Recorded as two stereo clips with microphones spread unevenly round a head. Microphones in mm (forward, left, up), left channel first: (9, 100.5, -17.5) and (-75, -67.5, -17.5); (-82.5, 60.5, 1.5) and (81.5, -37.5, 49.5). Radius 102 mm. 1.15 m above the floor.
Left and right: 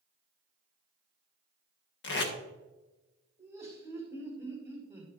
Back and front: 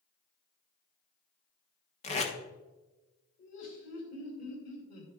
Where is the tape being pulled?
90° left, 1.3 m.